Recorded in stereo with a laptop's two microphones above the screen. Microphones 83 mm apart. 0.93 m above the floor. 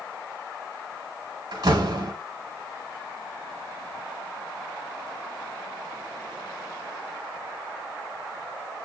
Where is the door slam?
60° right (ahead or behind), 2 m.